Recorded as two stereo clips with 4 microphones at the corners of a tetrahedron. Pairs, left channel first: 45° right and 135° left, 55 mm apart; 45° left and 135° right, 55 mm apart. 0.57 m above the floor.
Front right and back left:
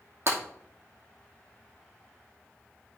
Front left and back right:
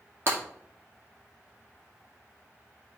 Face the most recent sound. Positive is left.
turn(degrees=180)